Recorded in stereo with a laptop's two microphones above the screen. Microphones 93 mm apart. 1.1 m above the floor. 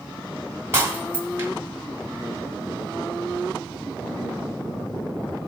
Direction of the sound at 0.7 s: 25° right (ahead or behind).